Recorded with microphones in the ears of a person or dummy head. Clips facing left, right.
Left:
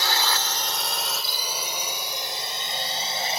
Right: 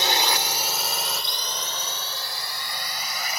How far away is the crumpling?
No crumpling in this recording.